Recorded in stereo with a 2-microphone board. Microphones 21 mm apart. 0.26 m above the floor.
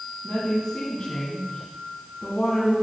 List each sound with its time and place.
0.2 s a woman speaking: 45° left (ahead or behind), 2.5 m